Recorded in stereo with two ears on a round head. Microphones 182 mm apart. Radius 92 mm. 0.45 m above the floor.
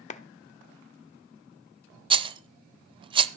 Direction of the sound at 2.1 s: 25° right (ahead or behind).